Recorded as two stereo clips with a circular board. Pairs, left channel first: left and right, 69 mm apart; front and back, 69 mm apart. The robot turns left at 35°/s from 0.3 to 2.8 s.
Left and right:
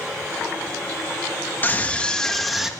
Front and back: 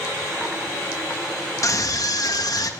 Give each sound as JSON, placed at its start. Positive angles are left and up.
{"t": 1.6, "sound": "a scream", "azimuth_deg": 30, "distance_m": 1.3}